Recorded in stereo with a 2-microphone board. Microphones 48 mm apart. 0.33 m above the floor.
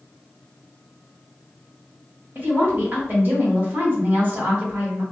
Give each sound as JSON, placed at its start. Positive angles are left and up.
{"t": 2.4, "sound": "a woman speaking", "side_deg": -40, "distance_m": 1.6}